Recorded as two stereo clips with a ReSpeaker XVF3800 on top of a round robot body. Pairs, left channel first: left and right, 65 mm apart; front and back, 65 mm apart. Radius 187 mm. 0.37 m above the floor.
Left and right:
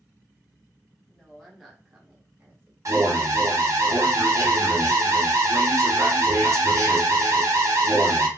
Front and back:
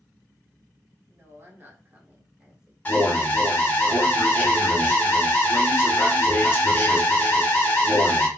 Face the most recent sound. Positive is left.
turn(degrees=-60)